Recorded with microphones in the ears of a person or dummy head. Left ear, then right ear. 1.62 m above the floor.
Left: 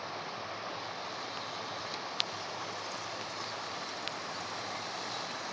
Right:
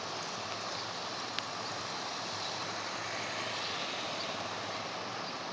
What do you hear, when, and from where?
0.0 s running water: 15° left (ahead or behind)